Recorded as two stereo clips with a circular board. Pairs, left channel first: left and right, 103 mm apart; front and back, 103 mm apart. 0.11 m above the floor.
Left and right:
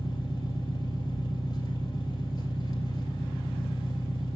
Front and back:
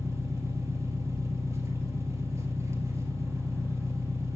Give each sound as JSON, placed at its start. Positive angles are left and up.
{"t": 0.0, "sound": "an engine running", "azimuth_deg": 125, "distance_m": 2.0}